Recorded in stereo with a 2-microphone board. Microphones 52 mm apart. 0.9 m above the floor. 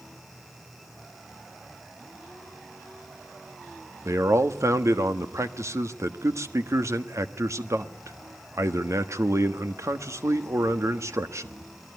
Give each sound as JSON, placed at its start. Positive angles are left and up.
{"t": 4.0, "sound": "a man speaking", "side_deg": -70, "distance_m": 1.4}